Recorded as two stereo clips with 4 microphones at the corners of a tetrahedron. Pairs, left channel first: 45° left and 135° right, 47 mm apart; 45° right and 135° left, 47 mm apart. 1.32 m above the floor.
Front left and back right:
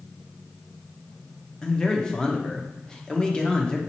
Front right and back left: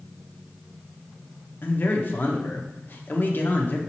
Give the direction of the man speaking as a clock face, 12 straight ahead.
1 o'clock.